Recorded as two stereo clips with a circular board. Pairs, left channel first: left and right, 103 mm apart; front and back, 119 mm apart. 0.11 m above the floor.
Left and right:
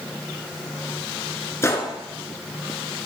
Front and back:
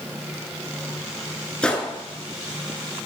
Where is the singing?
I don't hear singing.